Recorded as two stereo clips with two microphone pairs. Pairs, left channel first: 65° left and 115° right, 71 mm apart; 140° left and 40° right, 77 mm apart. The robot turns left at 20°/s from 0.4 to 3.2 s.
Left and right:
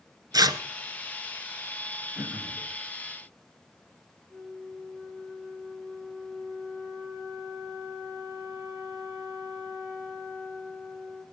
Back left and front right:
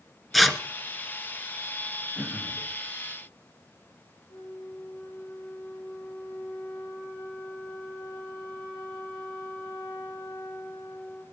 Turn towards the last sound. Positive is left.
turn(degrees=170)